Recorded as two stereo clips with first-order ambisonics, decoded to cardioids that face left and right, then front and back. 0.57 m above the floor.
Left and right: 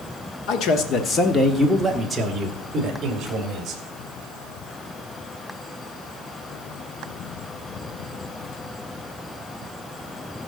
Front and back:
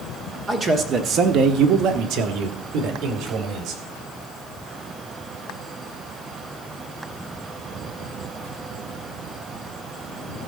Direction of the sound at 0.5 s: 110° left.